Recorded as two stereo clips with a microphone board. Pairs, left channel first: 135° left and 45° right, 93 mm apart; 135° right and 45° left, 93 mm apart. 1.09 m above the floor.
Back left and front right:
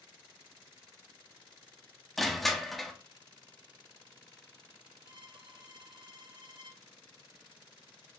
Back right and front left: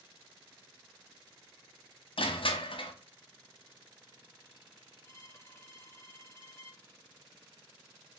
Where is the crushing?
140° right, 0.7 m.